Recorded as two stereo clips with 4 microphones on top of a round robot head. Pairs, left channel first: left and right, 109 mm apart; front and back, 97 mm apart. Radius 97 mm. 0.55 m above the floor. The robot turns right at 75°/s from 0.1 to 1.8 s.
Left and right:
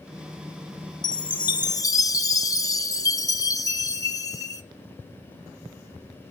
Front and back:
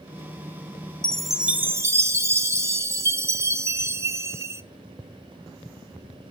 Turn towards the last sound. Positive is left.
turn(degrees=130)